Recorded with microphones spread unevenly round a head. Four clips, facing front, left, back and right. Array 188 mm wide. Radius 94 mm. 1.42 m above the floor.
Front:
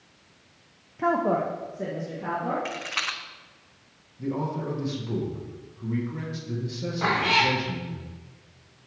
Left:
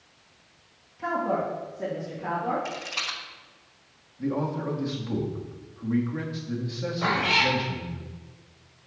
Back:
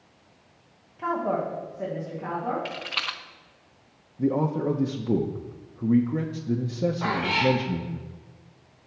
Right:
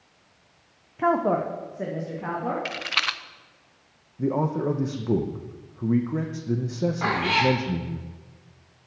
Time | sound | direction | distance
1.0 | a woman speaking | 50° right | 0.6 m
2.6 | a rattle | 55° right | 0.6 m
4.2 | a man speaking | 135° right | 0.8 m
7.0 | a cat meowing | 45° right | 3 m